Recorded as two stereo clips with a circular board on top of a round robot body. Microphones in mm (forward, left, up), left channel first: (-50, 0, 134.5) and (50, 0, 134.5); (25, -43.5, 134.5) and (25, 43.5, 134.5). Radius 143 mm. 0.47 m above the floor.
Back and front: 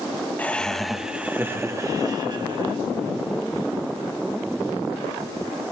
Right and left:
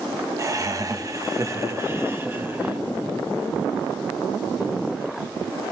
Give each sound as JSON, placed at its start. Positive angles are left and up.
{"t": 0.4, "sound": "laughter", "azimuth_deg": 115, "distance_m": 1.3}